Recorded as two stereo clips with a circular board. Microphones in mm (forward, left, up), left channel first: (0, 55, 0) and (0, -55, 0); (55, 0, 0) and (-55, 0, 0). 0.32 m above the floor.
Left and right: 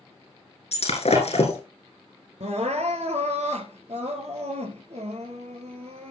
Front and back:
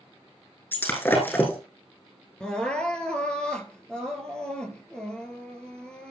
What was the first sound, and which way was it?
Breaking glass, 70° left.